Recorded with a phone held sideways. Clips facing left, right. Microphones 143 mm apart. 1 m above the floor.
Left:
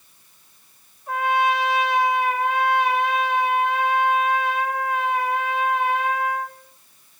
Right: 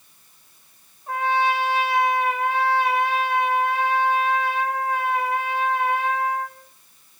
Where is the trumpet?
30° right (ahead or behind), 3.5 m.